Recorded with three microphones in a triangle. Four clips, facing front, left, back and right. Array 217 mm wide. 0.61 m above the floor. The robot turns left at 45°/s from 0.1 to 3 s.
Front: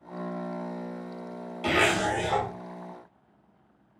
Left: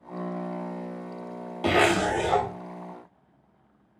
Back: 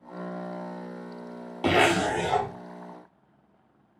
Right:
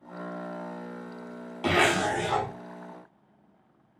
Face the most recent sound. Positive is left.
turn(degrees=85)